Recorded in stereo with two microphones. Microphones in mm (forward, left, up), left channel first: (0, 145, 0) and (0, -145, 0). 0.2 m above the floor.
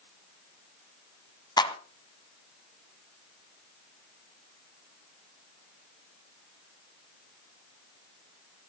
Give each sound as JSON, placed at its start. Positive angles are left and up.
{"t": 1.6, "sound": "a clap", "side_deg": 15, "distance_m": 1.5}